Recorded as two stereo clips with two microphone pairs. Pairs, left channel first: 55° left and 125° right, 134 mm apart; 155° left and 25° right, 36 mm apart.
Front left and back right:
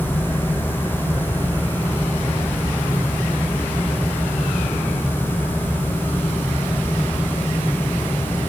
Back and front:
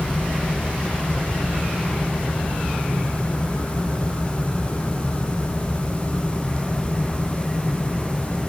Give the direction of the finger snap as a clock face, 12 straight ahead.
No finger snap in this recording.